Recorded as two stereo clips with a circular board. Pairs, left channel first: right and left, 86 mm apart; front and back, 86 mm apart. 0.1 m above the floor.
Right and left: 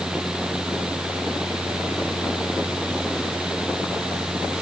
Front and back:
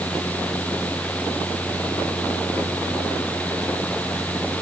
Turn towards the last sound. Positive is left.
No sound to turn to.